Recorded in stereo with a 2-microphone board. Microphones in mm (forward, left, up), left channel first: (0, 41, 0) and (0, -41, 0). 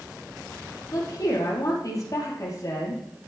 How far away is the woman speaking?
About 5 m.